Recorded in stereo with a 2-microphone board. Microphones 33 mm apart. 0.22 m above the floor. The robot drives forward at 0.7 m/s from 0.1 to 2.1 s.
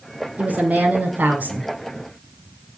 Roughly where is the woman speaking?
Right.